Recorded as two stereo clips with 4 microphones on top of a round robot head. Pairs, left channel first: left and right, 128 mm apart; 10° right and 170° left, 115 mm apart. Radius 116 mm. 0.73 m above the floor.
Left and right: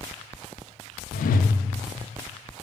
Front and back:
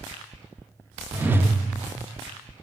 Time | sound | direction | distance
1.1 | a whoosh | 100° left | 0.7 m